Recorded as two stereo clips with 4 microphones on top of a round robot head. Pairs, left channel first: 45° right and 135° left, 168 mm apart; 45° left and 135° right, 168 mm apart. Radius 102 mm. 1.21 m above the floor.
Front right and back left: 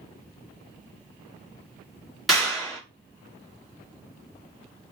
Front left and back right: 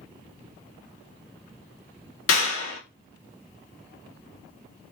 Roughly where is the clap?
Ahead left.